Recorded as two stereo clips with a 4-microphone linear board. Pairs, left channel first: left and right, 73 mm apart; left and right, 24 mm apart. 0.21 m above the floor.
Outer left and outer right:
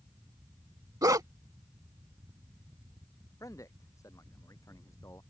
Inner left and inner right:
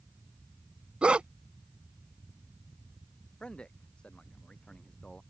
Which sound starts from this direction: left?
A man speaking, at 3.4 s.